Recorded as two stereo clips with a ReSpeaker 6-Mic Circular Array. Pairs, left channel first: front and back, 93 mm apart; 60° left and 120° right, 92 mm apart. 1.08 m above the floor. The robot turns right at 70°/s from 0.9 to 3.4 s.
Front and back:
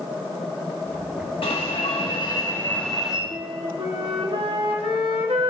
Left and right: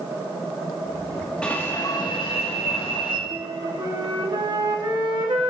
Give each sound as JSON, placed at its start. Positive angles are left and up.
{"t": 1.4, "sound": "an alarm", "azimuth_deg": -20, "distance_m": 2.0}
{"t": 3.3, "sound": "a flute", "azimuth_deg": -165, "distance_m": 1.4}